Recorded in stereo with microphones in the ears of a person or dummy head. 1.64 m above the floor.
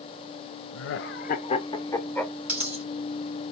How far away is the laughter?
About 0.5 m.